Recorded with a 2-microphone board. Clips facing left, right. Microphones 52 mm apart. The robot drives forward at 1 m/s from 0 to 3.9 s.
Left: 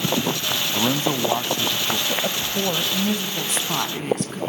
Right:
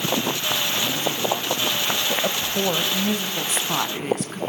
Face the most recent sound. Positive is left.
turn(degrees=-5)  # may be behind; listen again after turning